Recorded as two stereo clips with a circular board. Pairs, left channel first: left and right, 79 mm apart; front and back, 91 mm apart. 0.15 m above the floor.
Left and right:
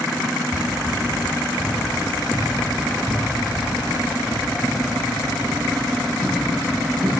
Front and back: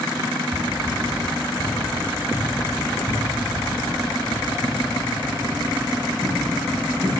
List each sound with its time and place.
0.5 s running footsteps: 170° right, 1.8 m; by 7.2 s 165° right, 6 m